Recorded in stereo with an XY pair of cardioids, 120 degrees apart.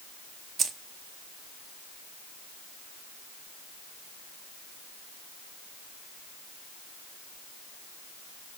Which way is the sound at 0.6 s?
40° right.